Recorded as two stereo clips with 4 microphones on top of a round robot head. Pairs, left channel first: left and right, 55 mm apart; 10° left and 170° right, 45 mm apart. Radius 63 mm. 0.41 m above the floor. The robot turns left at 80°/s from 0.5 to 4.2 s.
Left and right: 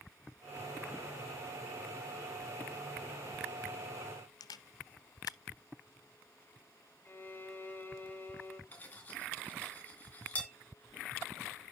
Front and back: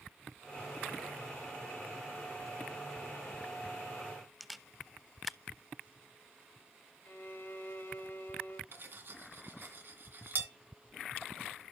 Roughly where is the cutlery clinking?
Behind left.